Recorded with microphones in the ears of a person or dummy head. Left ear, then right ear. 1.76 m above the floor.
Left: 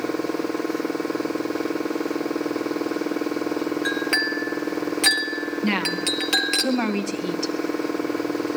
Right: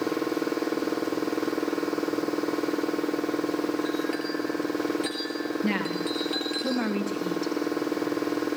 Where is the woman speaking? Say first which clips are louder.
Left 7 dB; 25° left (ahead or behind), 2.0 m.